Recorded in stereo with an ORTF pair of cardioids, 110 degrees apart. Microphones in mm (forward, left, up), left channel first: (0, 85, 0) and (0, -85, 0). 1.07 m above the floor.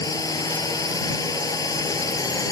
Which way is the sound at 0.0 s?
20° left.